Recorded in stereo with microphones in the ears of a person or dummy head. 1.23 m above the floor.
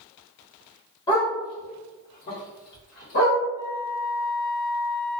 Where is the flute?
10° right (ahead or behind), 0.5 m.